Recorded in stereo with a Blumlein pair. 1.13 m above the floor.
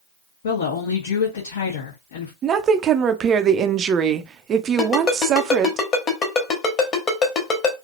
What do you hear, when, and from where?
0.4 s a woman speaking: 60° left, 1.1 m
2.4 s a woman speaking: 25° right, 0.6 m
4.8 s a ringtone: 25° left, 1.3 m